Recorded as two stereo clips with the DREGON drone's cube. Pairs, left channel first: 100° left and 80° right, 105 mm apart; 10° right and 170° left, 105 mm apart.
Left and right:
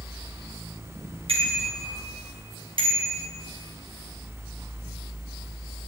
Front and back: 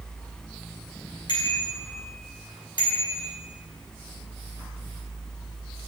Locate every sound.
1.3 s a bicycle bell: 55° right, 6 m; by 3.2 s 50° right, 4.5 m